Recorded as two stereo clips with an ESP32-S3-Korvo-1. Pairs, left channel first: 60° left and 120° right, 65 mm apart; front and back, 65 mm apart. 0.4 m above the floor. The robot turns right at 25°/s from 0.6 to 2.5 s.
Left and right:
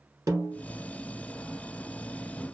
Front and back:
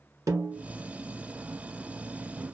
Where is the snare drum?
145° right, 1.2 m.